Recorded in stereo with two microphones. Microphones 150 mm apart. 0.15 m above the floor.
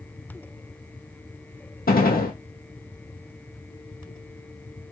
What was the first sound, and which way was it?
A gunshot, 85° left.